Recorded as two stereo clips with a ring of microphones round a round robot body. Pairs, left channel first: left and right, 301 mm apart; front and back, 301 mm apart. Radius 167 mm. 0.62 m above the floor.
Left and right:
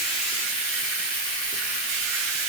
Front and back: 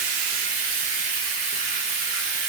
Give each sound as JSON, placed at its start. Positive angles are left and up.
{"t": 0.0, "sound": "running water", "azimuth_deg": 175, "distance_m": 0.7}